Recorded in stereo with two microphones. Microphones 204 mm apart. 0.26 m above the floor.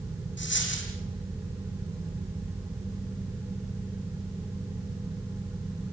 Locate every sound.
0.4 s a dropped coin: 65° left (ahead or behind), 5.5 m